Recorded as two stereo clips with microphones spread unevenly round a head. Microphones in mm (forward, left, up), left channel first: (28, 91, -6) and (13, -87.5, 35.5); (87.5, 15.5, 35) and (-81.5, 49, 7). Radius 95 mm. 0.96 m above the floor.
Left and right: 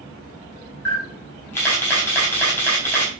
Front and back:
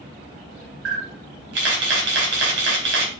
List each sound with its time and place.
0.8 s a camera shutter: 165° left, 4 m